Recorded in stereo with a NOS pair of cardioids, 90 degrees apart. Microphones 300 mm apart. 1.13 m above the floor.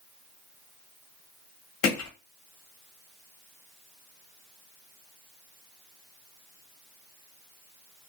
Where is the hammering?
65° left, 1.1 m.